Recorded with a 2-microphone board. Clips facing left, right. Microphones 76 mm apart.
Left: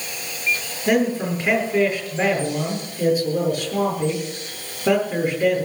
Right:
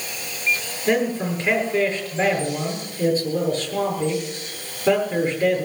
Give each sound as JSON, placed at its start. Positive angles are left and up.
{"t": 0.9, "sound": "a man speaking", "side_deg": 10, "distance_m": 7.5}